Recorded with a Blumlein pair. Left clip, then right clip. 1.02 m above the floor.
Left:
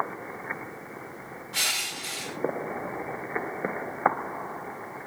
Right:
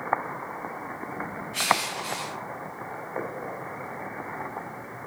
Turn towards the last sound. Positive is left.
turn(degrees=55)